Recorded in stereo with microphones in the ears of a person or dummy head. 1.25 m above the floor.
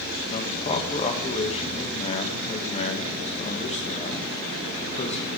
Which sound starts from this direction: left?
A man speaking, at 0.3 s.